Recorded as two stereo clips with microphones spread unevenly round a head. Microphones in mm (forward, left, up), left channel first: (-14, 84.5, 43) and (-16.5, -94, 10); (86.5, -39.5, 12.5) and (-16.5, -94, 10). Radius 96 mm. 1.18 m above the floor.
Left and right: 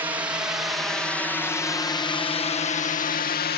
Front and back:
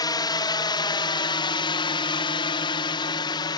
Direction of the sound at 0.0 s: 20° right.